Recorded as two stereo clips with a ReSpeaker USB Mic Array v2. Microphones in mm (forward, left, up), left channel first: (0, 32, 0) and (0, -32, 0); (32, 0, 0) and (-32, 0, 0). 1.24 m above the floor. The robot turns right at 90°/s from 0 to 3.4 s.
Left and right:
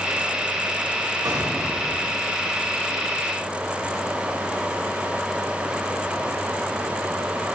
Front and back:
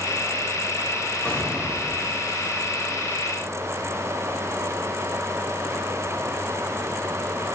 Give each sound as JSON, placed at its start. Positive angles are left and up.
{"t": 1.2, "sound": "an explosion", "azimuth_deg": -65, "distance_m": 3.5}